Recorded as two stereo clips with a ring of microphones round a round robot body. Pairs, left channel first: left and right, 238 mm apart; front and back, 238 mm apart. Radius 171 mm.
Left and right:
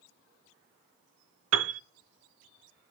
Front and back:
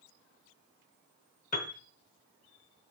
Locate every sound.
1.5 s a piano: 70° right, 0.7 m